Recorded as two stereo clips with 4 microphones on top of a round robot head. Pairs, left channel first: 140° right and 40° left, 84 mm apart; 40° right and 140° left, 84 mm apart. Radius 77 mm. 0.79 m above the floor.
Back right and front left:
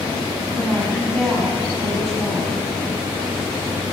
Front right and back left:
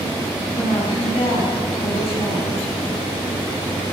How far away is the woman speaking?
About 8.5 m.